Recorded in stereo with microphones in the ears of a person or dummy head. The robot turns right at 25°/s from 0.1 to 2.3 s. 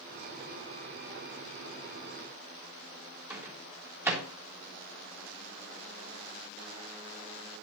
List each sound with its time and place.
3.3 s a microwave: 15° right (ahead or behind), 4 m